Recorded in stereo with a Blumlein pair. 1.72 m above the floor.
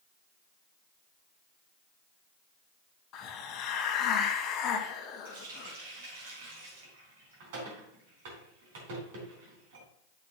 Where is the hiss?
30° left, 1.5 m.